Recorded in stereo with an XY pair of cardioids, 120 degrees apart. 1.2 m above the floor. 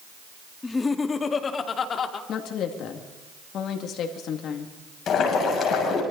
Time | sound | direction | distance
0.6 | laughter | 20° left | 2 m
2.3 | a woman speaking | 65° left | 2.5 m
5.1 | boiling | 55° left | 6.5 m